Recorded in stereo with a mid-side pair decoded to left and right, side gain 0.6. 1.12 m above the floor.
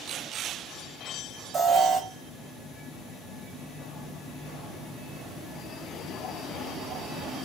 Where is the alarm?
40° right, 0.7 m.